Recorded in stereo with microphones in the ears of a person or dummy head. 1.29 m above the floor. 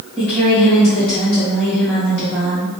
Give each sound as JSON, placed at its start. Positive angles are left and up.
{"t": 0.2, "sound": "a woman speaking", "side_deg": 5, "distance_m": 1.1}